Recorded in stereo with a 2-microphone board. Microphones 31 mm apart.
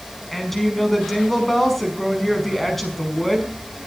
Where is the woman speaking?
10° left (ahead or behind), 5 m.